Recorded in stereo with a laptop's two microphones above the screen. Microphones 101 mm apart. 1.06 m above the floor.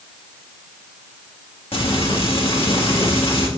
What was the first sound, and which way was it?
Frying, 65° left (ahead or behind).